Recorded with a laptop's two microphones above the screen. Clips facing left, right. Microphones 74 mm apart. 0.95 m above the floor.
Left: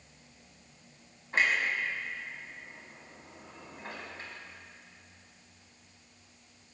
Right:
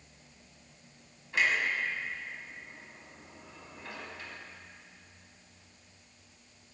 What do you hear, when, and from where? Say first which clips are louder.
1.3 s a clunk: left 1 dB; 40° left (ahead or behind), 1.6 m